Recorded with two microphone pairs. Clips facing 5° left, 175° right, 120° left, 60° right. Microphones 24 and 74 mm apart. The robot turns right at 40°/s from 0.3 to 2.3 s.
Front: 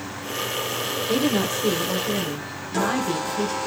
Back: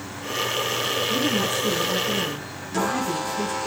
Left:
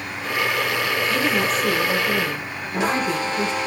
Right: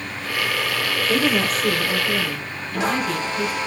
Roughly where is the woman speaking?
Ahead.